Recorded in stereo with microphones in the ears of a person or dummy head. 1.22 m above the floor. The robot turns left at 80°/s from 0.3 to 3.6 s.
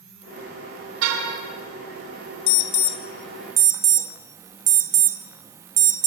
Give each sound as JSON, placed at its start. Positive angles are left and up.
{"t": 1.0, "sound": "a car horn", "azimuth_deg": -90, "distance_m": 3.5}
{"t": 2.5, "sound": "an alarm", "side_deg": 70, "distance_m": 1.0}